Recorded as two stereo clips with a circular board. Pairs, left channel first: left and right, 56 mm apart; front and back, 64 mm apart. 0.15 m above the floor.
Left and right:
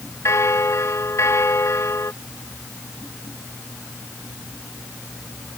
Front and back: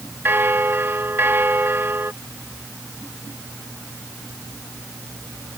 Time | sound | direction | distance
0.2 | a bell | 125° left | ?